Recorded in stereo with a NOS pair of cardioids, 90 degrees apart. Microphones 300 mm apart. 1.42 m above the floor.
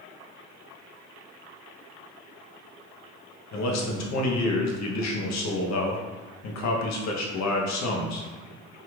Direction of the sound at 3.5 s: 65° left.